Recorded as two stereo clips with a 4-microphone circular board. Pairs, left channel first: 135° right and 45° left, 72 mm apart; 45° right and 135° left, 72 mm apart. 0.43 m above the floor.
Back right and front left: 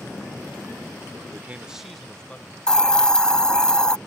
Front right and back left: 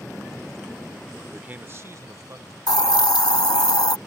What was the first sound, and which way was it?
A man speaking, 70° left.